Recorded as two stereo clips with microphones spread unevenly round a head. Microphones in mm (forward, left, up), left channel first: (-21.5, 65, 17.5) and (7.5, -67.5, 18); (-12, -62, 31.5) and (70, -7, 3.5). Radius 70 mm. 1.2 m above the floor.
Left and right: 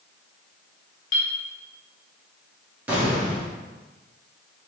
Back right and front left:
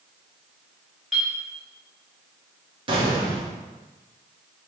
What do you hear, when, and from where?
1.1 s a clink: 130° left, 0.9 m
2.9 s an explosion: straight ahead, 1.3 m